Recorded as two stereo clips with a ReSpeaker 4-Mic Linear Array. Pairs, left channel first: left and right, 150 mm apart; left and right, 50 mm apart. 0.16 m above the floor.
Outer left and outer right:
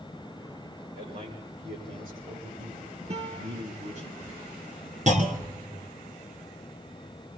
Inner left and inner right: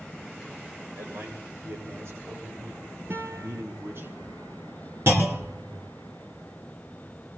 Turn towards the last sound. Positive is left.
turn(degrees=-55)  # may be behind; listen again after turning